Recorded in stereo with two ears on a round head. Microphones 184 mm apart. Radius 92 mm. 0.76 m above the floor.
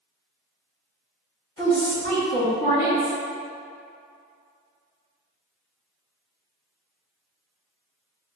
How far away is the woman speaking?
About 1.2 m.